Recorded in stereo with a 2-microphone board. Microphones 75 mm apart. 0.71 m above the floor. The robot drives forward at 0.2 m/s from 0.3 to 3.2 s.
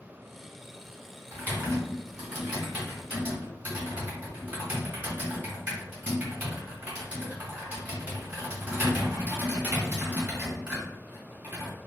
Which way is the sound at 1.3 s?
20° right (ahead or behind).